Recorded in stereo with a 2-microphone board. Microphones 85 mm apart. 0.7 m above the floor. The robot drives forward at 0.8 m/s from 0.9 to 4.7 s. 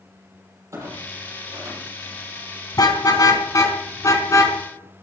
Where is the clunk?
35° right (ahead or behind), 7.5 m; by 2.4 s 40° right (ahead or behind), 6.5 m.